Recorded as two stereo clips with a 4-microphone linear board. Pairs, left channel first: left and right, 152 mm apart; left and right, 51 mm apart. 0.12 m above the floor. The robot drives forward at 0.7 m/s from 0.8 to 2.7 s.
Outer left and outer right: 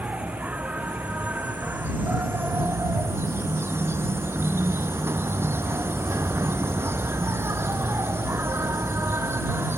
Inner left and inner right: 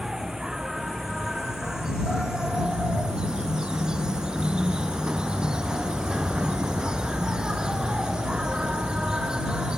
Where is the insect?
10° right (ahead or behind); by 9.8 s 15° right (ahead or behind).